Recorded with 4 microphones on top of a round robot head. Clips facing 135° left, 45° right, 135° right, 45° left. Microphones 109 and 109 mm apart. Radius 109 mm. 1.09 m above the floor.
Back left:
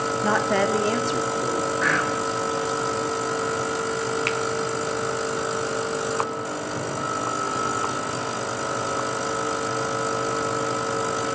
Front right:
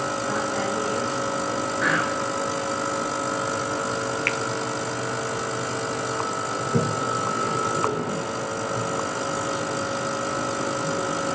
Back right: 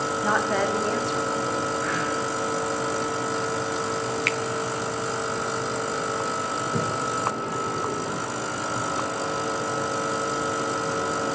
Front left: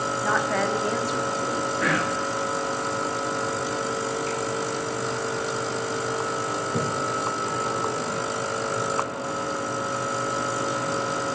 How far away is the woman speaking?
About 2.5 m.